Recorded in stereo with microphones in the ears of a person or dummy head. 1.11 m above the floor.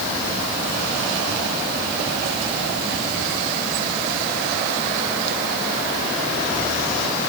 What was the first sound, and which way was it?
Only background noise.